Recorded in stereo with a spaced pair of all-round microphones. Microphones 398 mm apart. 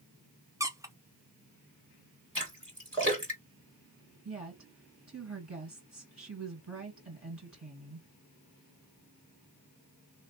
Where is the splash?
30° right (ahead or behind), 2.5 m.